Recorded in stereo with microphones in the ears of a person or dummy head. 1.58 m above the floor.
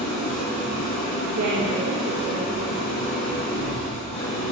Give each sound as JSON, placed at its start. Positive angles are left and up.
{"t": 0.0, "sound": "an engine running", "side_deg": 25, "distance_m": 1.0}
{"t": 1.4, "sound": "a woman speaking", "side_deg": -65, "distance_m": 0.9}